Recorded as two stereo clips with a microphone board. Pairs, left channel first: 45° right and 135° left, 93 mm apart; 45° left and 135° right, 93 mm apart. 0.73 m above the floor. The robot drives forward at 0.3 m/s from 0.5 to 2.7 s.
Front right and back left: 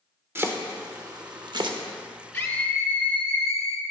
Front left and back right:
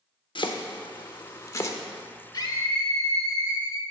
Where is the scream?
25° left, 0.7 m; by 3.8 s 30° left, 0.6 m.